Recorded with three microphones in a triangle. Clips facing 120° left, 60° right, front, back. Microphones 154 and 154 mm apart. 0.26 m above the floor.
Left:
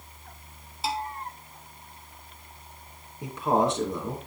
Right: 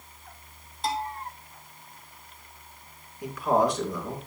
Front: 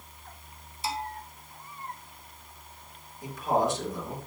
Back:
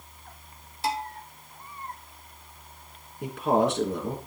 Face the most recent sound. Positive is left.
turn(degrees=180)